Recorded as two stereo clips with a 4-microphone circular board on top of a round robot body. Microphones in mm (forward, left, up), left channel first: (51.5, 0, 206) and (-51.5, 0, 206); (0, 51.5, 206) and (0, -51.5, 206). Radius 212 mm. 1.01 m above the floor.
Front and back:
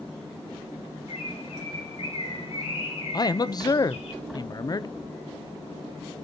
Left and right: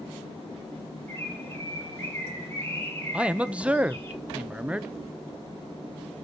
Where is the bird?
25° left, 3.5 m.